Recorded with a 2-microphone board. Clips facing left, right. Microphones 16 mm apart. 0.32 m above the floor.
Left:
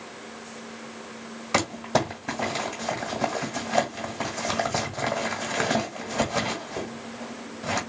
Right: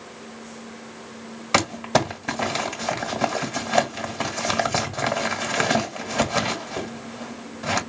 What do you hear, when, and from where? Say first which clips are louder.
1.5 s crumpling: right 4 dB; 25° right (ahead or behind), 1.3 m